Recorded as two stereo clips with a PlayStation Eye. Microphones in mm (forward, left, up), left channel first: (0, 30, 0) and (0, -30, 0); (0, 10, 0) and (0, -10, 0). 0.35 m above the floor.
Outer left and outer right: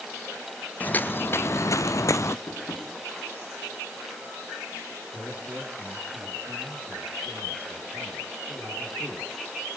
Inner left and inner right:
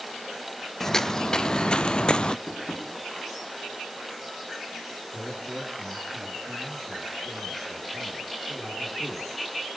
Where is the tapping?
85° left, 5 m.